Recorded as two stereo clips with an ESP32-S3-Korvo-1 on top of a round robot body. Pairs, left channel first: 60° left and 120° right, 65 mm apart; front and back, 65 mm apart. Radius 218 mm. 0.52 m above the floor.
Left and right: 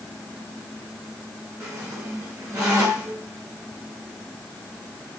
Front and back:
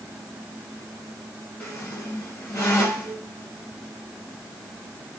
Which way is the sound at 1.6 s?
50° right.